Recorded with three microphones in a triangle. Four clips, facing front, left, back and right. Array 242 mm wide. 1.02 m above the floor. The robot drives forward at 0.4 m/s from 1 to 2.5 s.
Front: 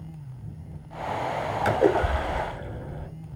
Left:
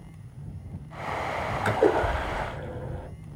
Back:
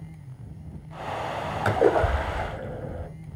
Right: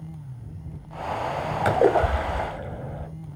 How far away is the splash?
About 2.5 m.